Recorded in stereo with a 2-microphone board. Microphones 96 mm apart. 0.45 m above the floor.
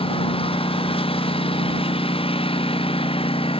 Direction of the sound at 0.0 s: 90° left.